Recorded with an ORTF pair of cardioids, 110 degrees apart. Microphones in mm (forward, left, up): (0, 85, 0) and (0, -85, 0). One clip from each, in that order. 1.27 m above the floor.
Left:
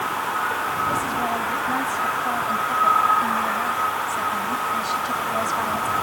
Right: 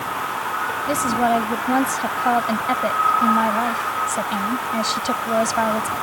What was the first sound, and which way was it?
A woman speaking, 60° right.